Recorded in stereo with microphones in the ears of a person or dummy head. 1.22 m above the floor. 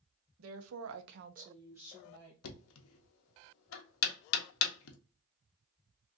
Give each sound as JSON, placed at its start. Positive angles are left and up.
{"t": 0.4, "sound": "a woman speaking", "side_deg": -80, "distance_m": 0.8}
{"t": 2.4, "sound": "knocking", "side_deg": 80, "distance_m": 0.8}